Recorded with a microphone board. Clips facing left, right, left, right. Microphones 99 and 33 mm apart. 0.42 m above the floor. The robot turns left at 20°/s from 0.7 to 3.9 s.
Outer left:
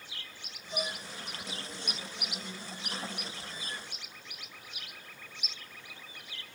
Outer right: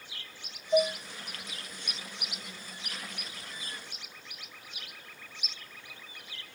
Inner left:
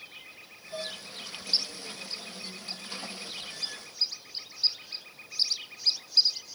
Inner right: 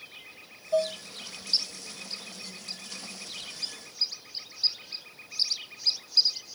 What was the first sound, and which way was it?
Dishes clattering, 70° right (ahead or behind).